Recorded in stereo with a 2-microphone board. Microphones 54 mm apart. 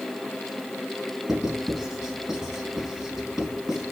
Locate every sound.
1.3 s writing: 10° right (ahead or behind), 3.5 m